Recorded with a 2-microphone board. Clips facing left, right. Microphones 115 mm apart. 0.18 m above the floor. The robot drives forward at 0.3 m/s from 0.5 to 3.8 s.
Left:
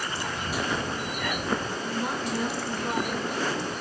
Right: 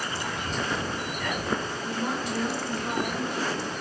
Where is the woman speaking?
15° left (ahead or behind), 1.9 m.